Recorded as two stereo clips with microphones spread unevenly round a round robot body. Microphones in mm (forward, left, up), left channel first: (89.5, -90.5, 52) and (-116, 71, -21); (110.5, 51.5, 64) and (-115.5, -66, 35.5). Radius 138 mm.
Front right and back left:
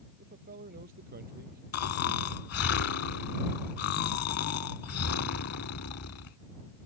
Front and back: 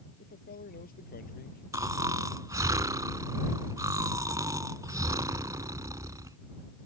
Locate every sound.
0.2 s a man speaking: 85° left
1.7 s snoring: 75° right